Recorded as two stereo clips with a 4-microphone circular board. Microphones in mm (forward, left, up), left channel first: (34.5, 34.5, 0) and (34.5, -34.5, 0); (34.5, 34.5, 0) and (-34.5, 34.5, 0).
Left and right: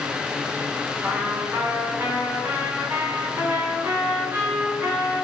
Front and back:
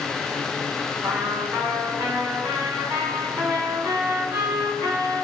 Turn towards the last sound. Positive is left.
turn(degrees=-140)